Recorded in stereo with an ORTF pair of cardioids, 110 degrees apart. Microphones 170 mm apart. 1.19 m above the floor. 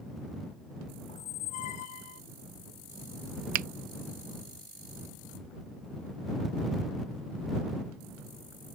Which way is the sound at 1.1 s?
50° left.